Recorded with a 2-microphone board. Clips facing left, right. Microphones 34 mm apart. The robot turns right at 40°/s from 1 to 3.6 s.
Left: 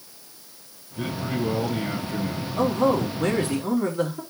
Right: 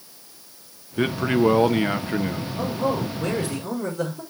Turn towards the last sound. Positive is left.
turn(degrees=130)